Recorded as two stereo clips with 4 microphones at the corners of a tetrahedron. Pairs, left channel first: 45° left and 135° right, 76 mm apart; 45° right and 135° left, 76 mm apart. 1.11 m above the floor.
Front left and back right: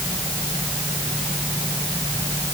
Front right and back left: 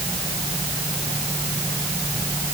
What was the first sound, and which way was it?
Only background noise.